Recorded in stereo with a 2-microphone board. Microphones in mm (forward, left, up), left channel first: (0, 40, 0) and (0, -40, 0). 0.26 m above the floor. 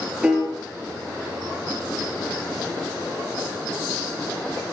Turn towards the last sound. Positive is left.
turn(degrees=-15)  # may be behind; listen again after turning